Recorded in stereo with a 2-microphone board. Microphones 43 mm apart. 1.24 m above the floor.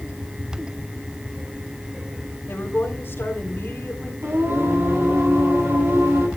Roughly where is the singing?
Right.